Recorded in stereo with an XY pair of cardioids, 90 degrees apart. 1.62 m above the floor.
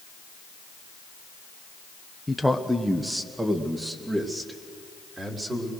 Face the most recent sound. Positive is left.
turn(degrees=-35)